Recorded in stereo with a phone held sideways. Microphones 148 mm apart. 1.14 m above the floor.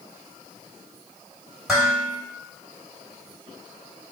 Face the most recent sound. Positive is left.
turn(degrees=0)  # may be behind; listen again after turning